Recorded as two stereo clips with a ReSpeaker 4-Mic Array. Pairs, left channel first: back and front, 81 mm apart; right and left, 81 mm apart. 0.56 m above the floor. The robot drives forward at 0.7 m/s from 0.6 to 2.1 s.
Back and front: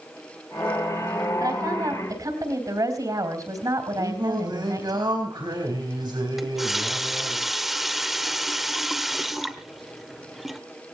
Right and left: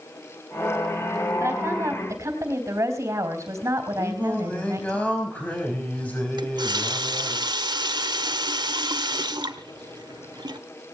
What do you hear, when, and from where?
1.4 s a woman speaking: 35° left, 4 m; by 5.0 s 40° left, 3.5 m
4.0 s singing: 20° right, 4.5 m
6.4 s a running tap: 85° left, 1.3 m